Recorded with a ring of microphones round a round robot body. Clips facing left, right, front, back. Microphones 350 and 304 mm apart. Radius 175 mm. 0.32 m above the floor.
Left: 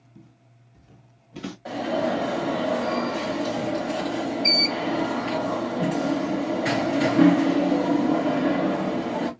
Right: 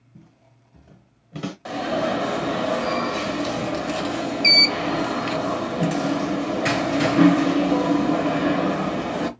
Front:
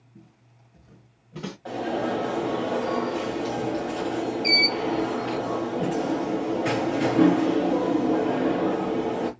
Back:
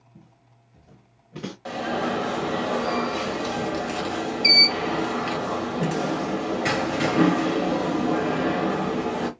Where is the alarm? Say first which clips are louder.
Even, front 1 dB; 135° right, 0.8 m.